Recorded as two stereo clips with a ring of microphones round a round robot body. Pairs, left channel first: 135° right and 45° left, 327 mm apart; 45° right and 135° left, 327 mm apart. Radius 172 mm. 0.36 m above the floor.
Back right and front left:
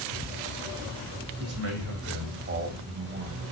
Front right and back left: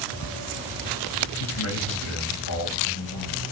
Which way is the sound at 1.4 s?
Straight ahead.